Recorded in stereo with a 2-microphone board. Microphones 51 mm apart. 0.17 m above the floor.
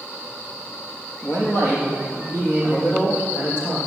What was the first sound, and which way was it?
A man speaking, 45° left (ahead or behind).